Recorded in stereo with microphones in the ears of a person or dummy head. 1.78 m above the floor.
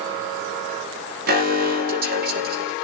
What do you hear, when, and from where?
1.3 s an alarm: 55° right (ahead or behind), 3.5 m